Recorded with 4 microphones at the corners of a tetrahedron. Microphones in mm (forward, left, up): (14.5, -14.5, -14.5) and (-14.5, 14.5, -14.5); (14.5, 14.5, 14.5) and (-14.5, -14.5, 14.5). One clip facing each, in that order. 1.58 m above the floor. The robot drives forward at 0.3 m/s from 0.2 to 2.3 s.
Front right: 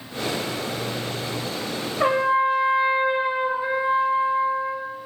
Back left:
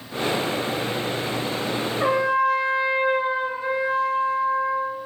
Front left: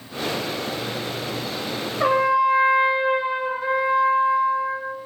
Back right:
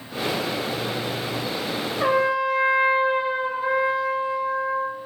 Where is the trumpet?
50° right, 1.0 m; by 4.9 s 60° right, 1.0 m.